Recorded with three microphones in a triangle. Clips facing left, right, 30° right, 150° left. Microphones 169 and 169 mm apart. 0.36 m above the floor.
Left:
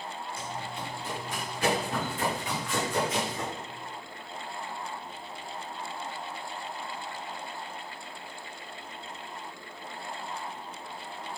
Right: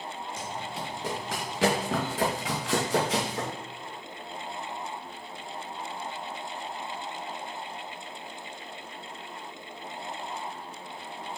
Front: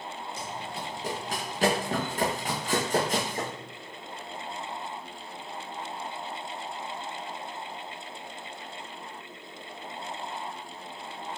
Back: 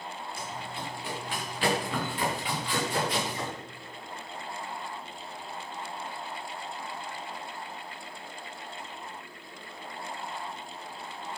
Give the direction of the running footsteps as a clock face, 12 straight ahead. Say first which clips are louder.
Right 2 dB, front 2 dB; 3 o'clock.